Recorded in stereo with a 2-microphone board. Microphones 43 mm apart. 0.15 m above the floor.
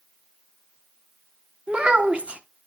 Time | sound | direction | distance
1.7 | a child speaking | 25° right (ahead or behind) | 0.7 m